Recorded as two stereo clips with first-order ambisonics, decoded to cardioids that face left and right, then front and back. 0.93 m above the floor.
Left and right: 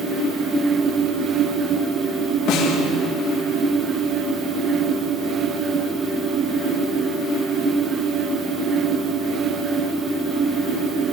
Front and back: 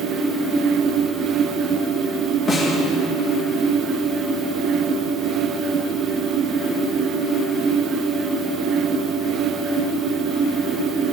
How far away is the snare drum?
About 2.0 m.